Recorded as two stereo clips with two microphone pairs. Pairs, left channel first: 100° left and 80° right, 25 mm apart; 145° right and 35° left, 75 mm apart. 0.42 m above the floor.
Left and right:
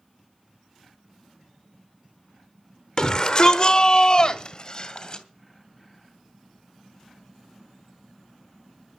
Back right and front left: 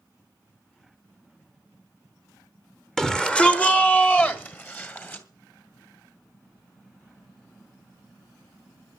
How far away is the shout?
About 1.0 m.